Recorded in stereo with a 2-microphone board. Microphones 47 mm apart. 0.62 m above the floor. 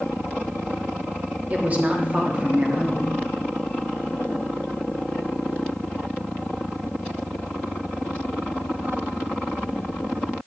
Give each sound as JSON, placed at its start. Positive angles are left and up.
{"t": 1.5, "sound": "a woman speaking", "side_deg": -30, "distance_m": 1.0}